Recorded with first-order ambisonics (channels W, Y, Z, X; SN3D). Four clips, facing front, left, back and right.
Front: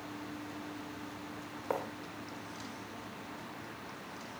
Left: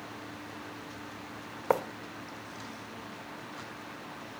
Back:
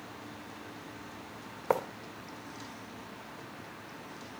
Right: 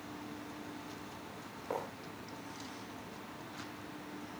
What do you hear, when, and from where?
1.7 s writing: 120° left, 1.5 m